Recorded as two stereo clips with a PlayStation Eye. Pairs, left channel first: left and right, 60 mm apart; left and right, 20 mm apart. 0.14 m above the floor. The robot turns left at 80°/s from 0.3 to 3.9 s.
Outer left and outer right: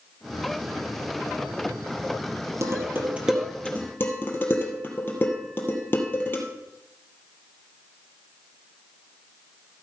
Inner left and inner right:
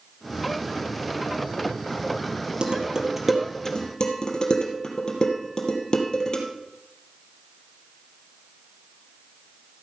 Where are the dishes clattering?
60° right (ahead or behind), 3 m; by 6.4 s 35° left (ahead or behind), 3 m.